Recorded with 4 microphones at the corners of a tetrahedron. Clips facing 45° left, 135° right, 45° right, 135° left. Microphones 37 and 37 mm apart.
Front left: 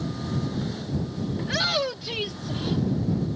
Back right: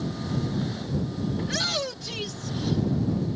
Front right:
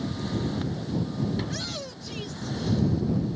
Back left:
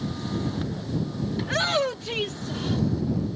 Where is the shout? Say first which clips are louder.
Front left 6 dB, back left 10 dB; 120° left; by 2.8 s 105° left.